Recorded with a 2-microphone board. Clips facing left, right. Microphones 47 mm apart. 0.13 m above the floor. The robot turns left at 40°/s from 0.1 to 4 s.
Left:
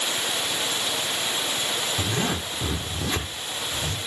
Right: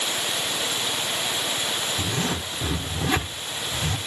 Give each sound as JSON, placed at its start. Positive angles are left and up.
{"t": 2.0, "sound": "a zipper", "side_deg": 35, "distance_m": 1.3}